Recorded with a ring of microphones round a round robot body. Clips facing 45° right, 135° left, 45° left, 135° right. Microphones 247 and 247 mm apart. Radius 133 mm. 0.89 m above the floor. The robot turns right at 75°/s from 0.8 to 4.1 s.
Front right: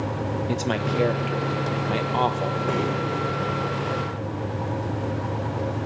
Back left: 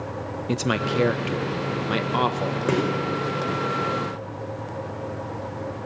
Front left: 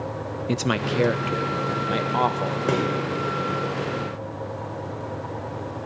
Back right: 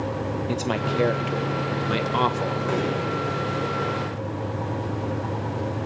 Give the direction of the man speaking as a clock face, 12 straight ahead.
9 o'clock.